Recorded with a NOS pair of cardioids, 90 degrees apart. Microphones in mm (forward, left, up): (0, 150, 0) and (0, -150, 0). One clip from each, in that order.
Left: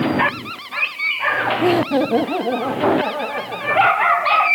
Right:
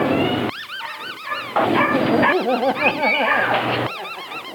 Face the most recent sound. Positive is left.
turn(degrees=-45)